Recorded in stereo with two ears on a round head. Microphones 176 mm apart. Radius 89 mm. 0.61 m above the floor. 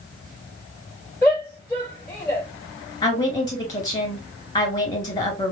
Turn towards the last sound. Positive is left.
turn(degrees=20)  # may be behind; listen again after turning